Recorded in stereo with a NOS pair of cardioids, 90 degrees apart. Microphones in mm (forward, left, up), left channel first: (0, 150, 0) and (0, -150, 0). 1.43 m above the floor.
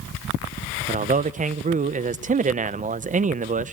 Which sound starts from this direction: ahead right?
A man speaking, at 0.9 s.